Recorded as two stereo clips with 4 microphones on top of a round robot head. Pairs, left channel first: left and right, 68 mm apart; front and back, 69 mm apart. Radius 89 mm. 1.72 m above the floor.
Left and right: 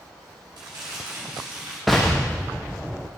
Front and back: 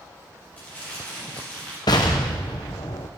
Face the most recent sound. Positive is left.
turn(degrees=0)